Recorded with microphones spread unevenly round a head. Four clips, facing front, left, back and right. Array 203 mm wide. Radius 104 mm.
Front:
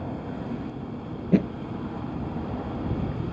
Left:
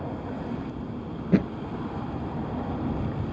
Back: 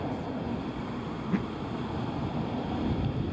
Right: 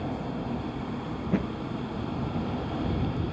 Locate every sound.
1.2 s a thud: 20° left